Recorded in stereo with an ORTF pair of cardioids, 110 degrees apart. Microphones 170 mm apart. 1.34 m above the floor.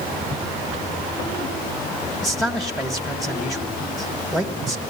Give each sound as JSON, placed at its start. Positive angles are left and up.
{"t": 2.2, "sound": "a man speaking", "azimuth_deg": 0, "distance_m": 1.6}